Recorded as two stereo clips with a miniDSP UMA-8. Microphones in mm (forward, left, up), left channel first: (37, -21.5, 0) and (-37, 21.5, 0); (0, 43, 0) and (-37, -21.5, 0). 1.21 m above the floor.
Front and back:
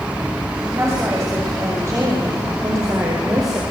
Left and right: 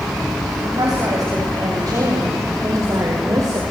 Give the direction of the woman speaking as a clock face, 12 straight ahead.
5 o'clock.